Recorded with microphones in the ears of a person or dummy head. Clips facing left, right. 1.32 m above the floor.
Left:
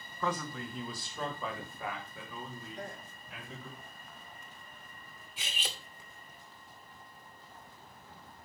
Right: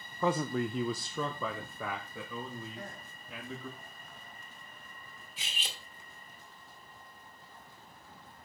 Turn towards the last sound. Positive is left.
turn(degrees=50)  # may be behind; listen again after turning